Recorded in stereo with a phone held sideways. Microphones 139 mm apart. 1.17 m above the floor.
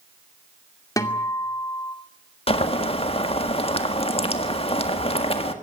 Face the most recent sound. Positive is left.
turn(degrees=45)  # may be behind; listen again after turning